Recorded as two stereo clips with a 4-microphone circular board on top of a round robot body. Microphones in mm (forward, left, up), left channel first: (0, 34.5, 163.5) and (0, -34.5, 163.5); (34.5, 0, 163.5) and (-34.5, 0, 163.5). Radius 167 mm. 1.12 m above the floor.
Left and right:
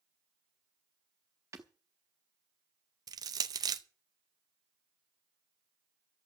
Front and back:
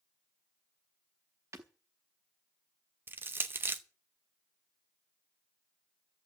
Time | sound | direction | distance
1.5 | breaking glass | 135° right | 0.8 m
3.1 | crushing | 120° right | 0.7 m